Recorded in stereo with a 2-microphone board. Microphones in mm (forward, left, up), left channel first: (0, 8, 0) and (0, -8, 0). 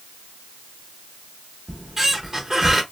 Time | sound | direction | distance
1.7 | a squeak | 20° right (ahead or behind) | 0.8 m